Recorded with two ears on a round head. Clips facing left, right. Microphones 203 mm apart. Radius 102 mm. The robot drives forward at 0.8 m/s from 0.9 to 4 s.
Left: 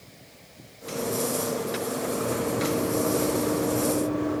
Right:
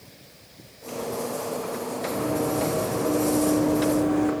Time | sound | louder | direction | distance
2.1 | running footsteps | right 4 dB | 75° right (ahead or behind) | 4 m